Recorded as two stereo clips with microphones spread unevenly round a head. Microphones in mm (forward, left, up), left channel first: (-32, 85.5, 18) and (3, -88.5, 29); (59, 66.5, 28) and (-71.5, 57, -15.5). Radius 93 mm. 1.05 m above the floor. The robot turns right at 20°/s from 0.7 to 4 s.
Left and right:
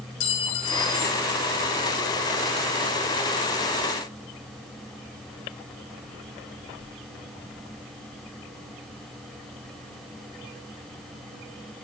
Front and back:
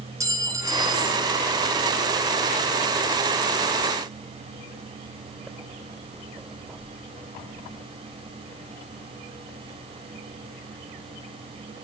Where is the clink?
115° left, 2.5 m; by 1.2 s 125° left, 2.5 m.